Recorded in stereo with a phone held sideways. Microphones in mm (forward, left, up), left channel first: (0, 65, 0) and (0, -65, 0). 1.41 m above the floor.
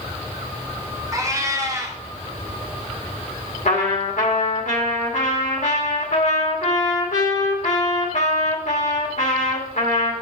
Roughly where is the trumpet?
Left.